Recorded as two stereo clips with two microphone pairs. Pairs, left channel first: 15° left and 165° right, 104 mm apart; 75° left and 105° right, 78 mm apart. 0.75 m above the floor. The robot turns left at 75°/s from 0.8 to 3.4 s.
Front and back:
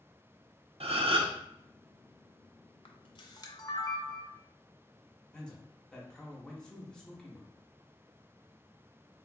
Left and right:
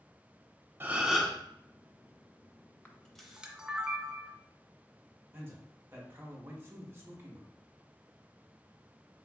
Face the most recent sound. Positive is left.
turn(degrees=-65)